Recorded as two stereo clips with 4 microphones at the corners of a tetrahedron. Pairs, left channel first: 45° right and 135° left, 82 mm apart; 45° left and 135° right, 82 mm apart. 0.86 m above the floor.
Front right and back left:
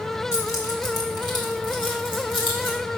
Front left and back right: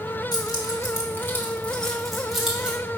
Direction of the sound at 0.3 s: 10° left.